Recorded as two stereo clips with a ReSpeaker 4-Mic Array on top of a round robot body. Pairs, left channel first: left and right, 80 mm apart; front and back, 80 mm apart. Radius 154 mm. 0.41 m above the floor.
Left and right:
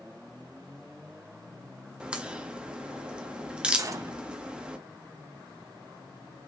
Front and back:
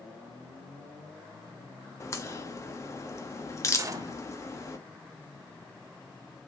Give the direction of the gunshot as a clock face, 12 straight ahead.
5 o'clock.